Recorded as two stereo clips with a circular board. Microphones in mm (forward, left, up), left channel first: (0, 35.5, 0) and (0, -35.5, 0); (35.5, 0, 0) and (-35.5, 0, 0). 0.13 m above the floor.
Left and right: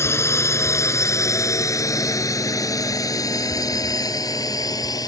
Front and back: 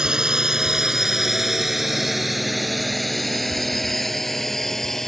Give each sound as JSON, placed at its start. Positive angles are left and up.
{"t": 0.0, "sound": "a drone", "azimuth_deg": 105}